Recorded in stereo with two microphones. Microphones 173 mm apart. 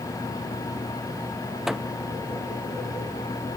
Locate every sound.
1.7 s a microwave: 5° right (ahead or behind)